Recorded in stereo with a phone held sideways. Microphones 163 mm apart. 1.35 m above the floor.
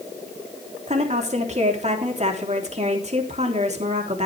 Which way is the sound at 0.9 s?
40° right (ahead or behind).